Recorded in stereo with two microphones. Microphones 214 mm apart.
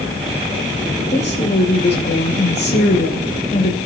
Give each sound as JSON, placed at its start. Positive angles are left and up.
{"t": 1.1, "sound": "a woman speaking", "side_deg": 50, "distance_m": 2.5}